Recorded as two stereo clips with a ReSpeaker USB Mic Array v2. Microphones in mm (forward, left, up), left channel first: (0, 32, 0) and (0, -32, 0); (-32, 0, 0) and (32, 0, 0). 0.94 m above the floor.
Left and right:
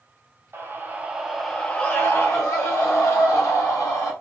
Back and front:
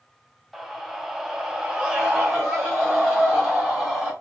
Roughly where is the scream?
Right.